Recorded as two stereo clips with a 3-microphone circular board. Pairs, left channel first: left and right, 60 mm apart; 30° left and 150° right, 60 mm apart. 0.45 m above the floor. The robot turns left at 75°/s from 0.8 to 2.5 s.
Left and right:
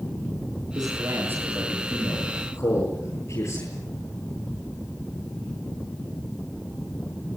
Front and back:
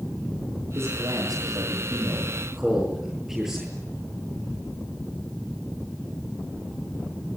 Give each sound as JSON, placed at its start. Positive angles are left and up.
{"t": 0.8, "sound": "a man speaking", "azimuth_deg": -105, "distance_m": 9.5}